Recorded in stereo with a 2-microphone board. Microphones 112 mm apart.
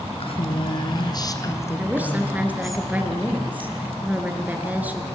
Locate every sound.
0.2 s a woman speaking: 60° left (ahead or behind), 3 m; by 2.8 s centre (ahead or behind), 3 m
1.8 s a woman speaking: 15° right (ahead or behind), 3.5 m